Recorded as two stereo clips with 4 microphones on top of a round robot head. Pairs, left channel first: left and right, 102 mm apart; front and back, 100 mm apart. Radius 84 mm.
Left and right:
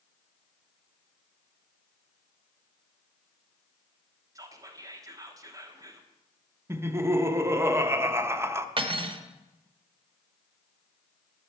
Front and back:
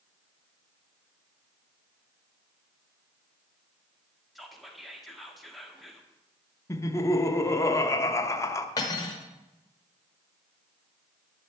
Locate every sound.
4.3 s whispering: 90° right, 1.2 m
6.7 s laughter: 40° right, 0.9 m
8.8 s cutlery clinking: 55° right, 1.0 m